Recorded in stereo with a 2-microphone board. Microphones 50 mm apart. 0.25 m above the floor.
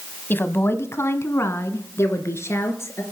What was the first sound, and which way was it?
A woman speaking, 40° left (ahead or behind).